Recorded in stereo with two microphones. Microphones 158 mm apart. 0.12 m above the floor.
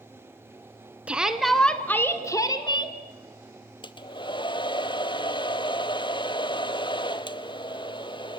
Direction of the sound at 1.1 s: 10° right (ahead or behind).